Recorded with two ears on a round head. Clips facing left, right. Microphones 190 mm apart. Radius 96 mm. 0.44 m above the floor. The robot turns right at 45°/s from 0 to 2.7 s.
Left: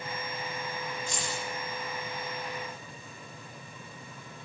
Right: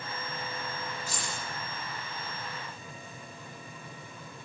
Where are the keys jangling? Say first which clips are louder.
Left 3 dB; 5° right (ahead or behind), 9 m; by 1.4 s 10° left (ahead or behind), 9 m.